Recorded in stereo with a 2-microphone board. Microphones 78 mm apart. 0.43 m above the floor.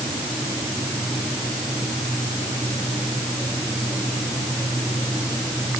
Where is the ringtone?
I don't hear a ringtone.